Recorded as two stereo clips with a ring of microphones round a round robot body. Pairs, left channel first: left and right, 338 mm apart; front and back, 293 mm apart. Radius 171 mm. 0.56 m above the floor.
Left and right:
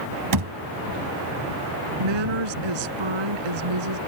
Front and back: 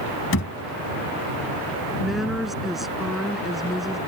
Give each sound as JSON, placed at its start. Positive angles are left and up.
{"t": 0.3, "sound": "a thud", "azimuth_deg": -55}
{"t": 2.0, "sound": "a woman speaking", "azimuth_deg": -90}